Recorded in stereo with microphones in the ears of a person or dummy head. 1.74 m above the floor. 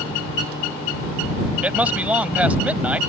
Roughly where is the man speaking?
Centre.